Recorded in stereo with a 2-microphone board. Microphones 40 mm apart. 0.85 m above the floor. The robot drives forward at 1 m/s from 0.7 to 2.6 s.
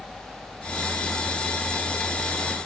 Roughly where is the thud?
I don't hear a thud.